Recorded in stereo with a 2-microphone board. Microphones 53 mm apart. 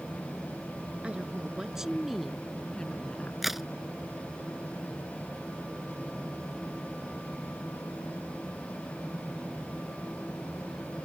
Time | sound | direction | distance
1.0 | a woman speaking | 20° right (ahead or behind) | ?
3.4 | a crack | 5° right (ahead or behind) | ?